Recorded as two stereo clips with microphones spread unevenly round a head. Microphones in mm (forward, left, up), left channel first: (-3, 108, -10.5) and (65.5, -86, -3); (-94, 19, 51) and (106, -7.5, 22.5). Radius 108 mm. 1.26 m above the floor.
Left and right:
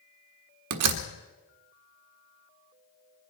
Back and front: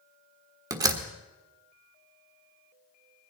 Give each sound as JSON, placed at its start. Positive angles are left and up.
{"t": 0.7, "sound": "a door slam", "azimuth_deg": -85, "distance_m": 1.4}